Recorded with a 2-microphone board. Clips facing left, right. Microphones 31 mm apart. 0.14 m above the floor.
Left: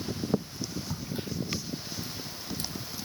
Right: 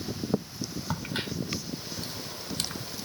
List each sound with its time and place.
0.9 s a crack: 55° right (ahead or behind), 0.8 m